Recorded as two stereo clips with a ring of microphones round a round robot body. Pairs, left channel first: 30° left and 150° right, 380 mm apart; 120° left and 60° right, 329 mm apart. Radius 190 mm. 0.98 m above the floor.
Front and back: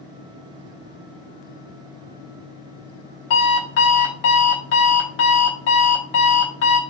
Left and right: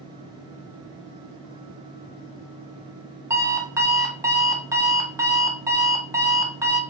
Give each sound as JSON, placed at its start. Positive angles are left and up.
{"t": 3.3, "sound": "an alarm clock", "azimuth_deg": 20, "distance_m": 1.1}